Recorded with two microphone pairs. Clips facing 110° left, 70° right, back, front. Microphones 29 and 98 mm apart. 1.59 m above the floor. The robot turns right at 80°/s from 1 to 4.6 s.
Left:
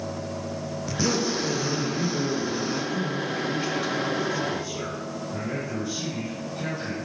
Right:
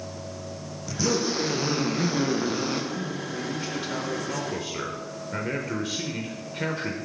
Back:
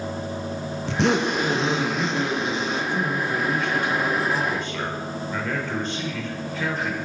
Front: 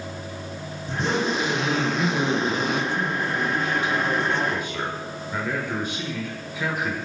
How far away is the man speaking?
About 0.7 m.